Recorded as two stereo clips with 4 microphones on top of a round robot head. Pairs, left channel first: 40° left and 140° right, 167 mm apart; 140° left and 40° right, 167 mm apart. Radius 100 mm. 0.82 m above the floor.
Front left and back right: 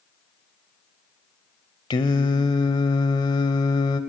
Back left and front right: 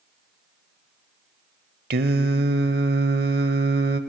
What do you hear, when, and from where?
1.9 s singing: 20° right, 0.8 m